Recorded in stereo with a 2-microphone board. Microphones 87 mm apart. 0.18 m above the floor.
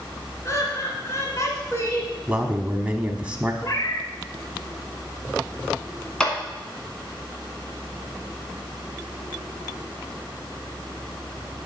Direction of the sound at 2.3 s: 15° right (ahead or behind).